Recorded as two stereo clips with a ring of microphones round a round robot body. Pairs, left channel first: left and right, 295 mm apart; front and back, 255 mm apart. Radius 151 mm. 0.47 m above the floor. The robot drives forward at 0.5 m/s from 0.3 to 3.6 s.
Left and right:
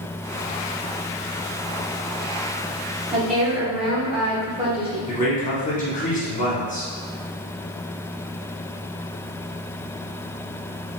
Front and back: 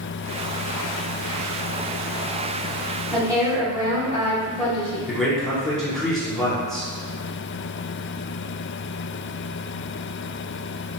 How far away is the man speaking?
About 1.4 m.